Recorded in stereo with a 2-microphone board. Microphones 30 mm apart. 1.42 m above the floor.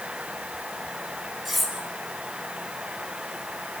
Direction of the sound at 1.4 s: Centre (ahead or behind).